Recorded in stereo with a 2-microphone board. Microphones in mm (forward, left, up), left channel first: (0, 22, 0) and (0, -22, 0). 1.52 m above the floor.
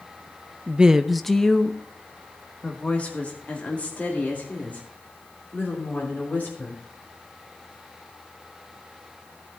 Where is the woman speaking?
30° right (ahead or behind), 0.5 m; by 6.8 s 40° left (ahead or behind), 4.5 m.